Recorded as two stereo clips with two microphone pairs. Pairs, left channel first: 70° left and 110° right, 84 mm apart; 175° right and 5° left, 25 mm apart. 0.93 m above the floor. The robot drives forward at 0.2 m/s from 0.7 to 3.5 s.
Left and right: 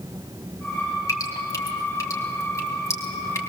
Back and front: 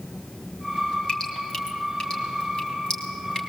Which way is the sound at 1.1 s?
125° left.